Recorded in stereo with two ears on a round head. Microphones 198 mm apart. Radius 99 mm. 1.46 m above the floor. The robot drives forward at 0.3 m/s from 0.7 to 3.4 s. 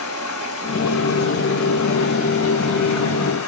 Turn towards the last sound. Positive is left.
turn(degrees=75)  # may be behind; listen again after turning